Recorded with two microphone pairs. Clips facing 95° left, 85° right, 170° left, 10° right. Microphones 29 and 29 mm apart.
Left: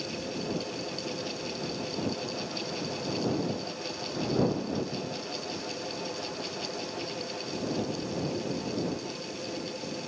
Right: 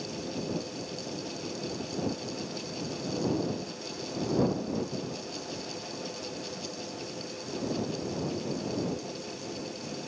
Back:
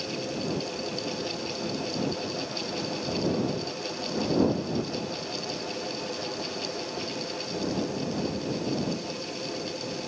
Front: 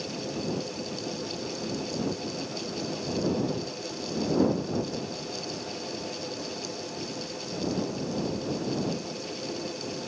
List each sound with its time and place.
Only background noise.